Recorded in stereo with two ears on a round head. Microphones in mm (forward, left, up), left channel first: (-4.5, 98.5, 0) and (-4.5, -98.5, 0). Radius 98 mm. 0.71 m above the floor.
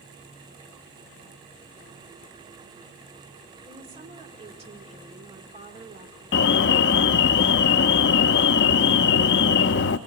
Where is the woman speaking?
30° right (ahead or behind), 2 m.